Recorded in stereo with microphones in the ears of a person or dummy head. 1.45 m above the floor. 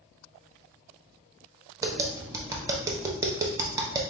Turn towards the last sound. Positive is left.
turn(degrees=-15)  # may be behind; listen again after turning